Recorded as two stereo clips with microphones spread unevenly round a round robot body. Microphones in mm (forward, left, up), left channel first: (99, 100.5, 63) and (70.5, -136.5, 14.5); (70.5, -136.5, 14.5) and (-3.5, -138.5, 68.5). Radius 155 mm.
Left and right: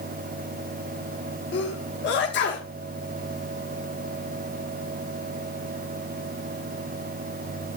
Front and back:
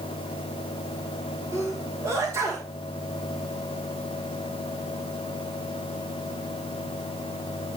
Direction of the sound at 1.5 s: 85° left.